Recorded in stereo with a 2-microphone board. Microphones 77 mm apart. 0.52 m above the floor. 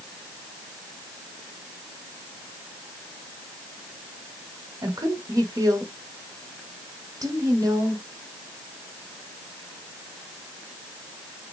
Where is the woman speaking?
55° right (ahead or behind), 1.2 m.